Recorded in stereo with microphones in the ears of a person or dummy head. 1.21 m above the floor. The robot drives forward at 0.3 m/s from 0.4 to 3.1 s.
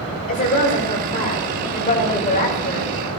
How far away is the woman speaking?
About 4.5 m.